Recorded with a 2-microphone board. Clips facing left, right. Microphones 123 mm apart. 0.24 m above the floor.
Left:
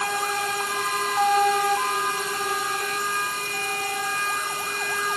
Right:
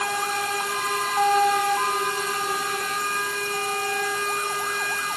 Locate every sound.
Only background noise.